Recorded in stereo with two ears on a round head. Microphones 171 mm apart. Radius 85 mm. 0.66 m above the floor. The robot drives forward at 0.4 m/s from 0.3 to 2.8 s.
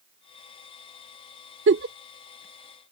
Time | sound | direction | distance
1.7 | a giggle | 70° right (ahead or behind) | ?